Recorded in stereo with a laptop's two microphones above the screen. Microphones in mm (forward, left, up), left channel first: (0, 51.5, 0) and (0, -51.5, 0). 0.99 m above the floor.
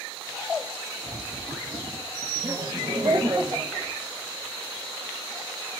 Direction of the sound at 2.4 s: 30° right (ahead or behind).